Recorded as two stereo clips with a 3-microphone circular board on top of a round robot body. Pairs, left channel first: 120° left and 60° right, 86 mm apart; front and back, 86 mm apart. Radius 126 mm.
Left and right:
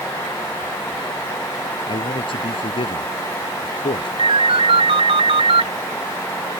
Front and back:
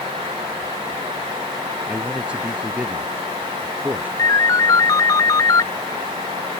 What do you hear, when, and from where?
1.9 s a man speaking: 100° left; by 4.1 s 105° left
4.2 s a ringtone: 55° right